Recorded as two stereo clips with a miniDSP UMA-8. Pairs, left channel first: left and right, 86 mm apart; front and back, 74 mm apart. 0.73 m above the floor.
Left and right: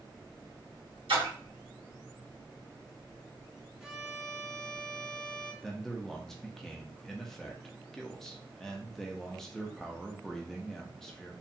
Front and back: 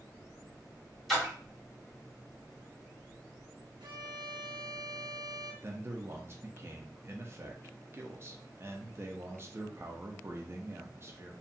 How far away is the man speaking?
About 0.5 m.